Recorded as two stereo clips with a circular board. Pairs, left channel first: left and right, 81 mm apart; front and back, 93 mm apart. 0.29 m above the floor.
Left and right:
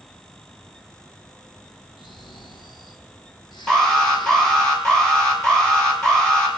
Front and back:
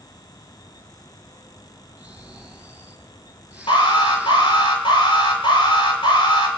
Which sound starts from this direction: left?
Snoring, at 2.0 s.